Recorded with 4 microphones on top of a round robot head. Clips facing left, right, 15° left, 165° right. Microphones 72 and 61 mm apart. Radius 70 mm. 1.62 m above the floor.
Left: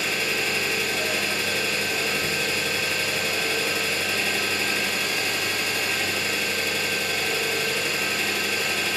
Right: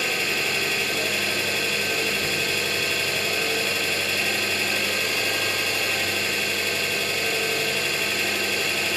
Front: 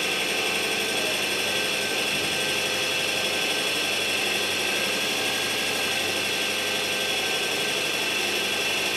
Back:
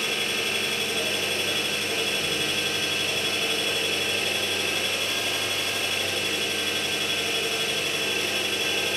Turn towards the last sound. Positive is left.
turn(degrees=10)